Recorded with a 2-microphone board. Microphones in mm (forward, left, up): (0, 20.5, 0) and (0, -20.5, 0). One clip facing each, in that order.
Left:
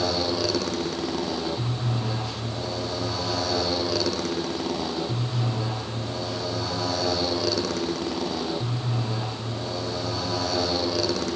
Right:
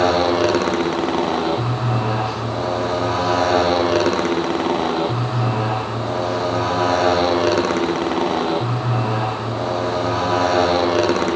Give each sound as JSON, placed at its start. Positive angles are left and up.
{"t": 0.0, "sound": "a motorcycle", "side_deg": -45}